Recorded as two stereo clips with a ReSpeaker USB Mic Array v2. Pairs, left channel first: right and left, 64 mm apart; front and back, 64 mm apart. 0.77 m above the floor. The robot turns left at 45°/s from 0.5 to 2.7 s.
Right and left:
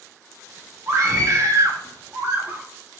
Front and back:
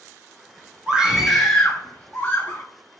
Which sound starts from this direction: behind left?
A scream, at 0.9 s.